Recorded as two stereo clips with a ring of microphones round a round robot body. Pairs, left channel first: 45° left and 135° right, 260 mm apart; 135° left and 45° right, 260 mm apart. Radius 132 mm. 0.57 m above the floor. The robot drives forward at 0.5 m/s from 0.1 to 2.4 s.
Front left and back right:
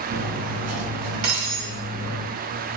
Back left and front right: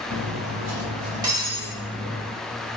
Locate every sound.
0.1 s cutlery clinking: 85° right, 0.8 m; by 2.3 s 140° right, 1.3 m